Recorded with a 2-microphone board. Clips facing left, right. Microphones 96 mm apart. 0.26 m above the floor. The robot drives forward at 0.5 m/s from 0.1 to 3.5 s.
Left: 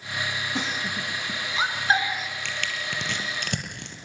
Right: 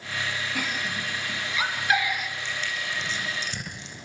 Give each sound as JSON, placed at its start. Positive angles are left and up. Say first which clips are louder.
{"t": 0.6, "sound": "a giggle", "louder": "left 1 dB", "side_deg": 25, "distance_m": 4.5}
{"t": 2.5, "sound": "crushing", "louder": "even", "side_deg": 70, "distance_m": 5.0}